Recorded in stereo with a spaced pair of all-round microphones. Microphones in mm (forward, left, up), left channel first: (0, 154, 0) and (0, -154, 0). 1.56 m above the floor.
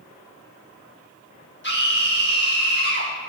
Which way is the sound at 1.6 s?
35° left (ahead or behind).